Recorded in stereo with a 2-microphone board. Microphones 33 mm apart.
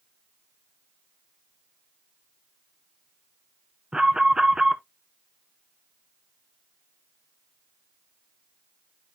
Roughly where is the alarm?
Centre.